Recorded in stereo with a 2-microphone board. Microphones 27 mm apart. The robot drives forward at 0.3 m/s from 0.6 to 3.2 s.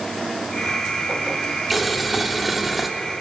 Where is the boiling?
5° right (ahead or behind), 1.9 m.